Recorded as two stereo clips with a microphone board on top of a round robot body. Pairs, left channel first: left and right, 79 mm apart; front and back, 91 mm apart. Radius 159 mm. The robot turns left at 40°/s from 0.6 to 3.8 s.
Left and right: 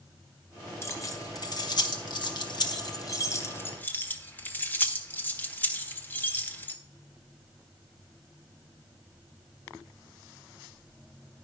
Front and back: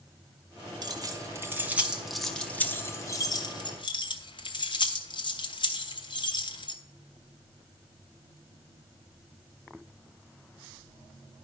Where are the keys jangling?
145° left, 1.4 m; by 6.8 s 25° left, 1.4 m.